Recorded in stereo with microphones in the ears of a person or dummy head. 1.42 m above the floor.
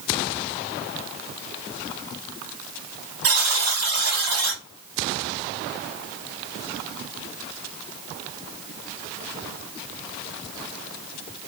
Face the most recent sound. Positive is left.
turn(degrees=-65)  # may be behind; listen again after turning